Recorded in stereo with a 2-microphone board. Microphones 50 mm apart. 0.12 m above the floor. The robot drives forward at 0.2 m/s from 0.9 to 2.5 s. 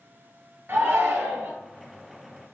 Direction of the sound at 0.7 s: 50° right (ahead or behind).